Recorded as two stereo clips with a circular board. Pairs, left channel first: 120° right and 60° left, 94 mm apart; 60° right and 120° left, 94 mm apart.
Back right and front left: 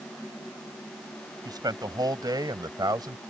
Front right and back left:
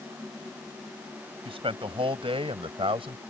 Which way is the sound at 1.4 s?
105° left.